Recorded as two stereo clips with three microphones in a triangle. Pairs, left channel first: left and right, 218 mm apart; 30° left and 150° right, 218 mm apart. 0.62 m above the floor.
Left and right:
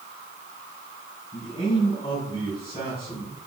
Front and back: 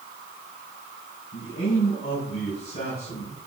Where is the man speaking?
25° left, 5 m.